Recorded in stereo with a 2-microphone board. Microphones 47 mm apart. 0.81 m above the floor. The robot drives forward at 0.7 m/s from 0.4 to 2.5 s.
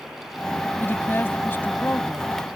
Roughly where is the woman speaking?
Left.